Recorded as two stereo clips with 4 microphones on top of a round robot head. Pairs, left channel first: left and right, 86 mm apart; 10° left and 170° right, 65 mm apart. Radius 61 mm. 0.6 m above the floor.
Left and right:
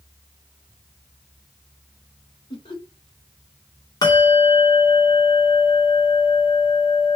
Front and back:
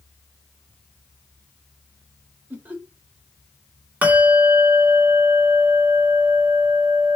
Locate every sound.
2.5 s laughter: 125° left, 2 m
4.0 s a bell: 125° left, 1.7 m